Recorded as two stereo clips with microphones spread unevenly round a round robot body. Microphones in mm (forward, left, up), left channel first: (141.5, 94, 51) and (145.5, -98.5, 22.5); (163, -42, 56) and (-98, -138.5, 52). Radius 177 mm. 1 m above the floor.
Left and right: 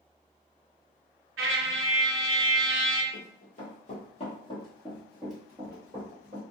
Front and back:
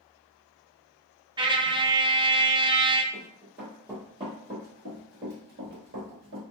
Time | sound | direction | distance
1.4 | a trumpet | 85° right | 0.6 m
3.1 | running footsteps | 110° left | 1.6 m